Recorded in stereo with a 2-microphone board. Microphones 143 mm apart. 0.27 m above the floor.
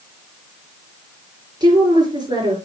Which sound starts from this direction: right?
A woman speaking, at 1.6 s.